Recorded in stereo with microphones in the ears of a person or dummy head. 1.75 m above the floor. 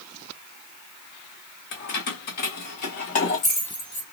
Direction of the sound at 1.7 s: 55° left (ahead or behind).